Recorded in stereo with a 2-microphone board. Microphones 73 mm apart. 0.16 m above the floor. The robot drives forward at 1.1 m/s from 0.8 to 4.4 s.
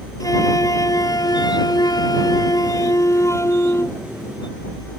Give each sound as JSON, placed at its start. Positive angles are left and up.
{"t": 0.2, "sound": "a flute", "side_deg": 55}